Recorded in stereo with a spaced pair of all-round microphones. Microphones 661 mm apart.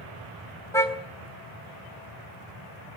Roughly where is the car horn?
Centre.